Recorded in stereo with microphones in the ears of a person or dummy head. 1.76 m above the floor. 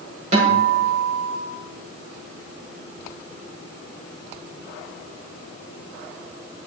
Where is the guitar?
45° right (ahead or behind), 5.5 m.